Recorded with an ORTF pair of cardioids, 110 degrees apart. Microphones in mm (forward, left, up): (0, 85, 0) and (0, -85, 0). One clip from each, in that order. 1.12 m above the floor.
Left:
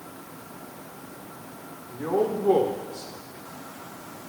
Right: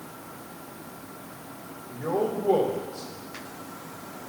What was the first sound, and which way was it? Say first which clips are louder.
A man speaking: left 2 dB; 40° left.